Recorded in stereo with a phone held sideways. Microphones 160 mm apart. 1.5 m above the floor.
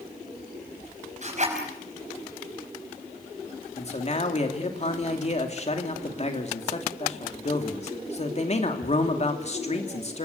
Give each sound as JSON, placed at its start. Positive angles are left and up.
{"t": 1.2, "sound": "a zipper", "side_deg": -50, "distance_m": 5.0}
{"t": 3.8, "sound": "a man speaking", "side_deg": 45, "distance_m": 3.0}